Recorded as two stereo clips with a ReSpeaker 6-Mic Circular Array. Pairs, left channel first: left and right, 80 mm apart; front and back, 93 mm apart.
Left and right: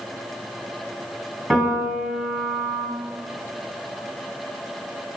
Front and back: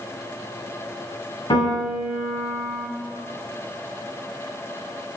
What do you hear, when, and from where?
1.5 s a piano: straight ahead, 1.3 m